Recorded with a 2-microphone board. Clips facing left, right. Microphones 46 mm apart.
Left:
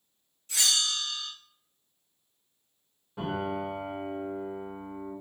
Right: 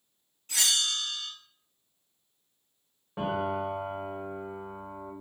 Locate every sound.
0.5 s a bell: 40° right (ahead or behind), 1.7 m
3.2 s a piano: 35° right (ahead or behind), 1.1 m